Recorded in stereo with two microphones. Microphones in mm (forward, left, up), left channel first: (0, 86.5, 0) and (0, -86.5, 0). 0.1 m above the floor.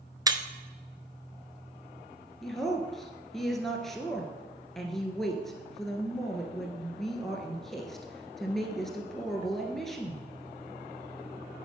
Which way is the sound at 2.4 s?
Centre (ahead or behind).